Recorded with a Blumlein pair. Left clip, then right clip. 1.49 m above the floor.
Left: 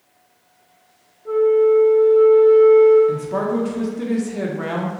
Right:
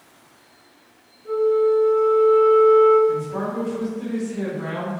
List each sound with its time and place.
1.2 s a flute: 5° left, 1.0 m
3.1 s a man speaking: 40° left, 0.7 m